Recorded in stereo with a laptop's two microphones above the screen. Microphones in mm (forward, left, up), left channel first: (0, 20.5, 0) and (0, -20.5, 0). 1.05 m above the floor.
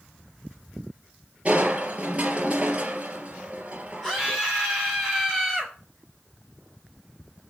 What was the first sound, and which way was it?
Crushing, 30° right (ahead or behind).